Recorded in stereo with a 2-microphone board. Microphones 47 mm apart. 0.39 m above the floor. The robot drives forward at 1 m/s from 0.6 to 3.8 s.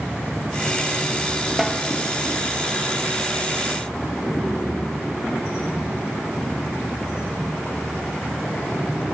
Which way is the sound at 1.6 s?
5° right (ahead or behind).